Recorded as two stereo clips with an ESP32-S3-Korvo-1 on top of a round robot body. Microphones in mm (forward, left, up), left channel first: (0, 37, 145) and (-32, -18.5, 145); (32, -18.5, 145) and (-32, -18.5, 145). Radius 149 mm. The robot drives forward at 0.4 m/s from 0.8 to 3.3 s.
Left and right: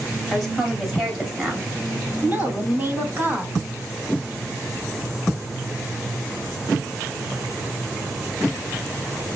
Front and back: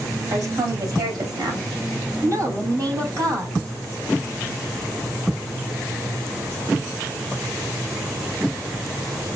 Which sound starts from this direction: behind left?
A woman speaking, at 0.3 s.